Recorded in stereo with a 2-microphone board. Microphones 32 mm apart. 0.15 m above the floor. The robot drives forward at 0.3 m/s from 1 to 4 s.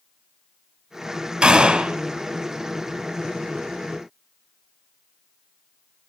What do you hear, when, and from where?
1.4 s a gunshot: 25° right (ahead or behind), 0.9 m